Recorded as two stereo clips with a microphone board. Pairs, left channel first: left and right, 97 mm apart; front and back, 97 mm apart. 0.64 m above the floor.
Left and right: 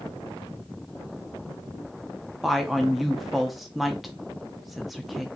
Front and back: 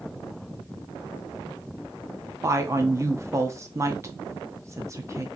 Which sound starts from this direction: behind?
A woman speaking, at 2.4 s.